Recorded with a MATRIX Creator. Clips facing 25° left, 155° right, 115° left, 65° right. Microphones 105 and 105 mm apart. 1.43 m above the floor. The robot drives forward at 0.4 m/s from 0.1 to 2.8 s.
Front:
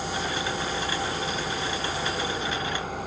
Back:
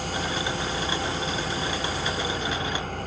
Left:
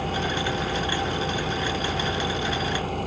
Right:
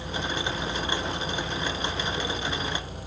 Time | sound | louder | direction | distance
0.0 | an engine running | even, left 5 dB | 100° left | ?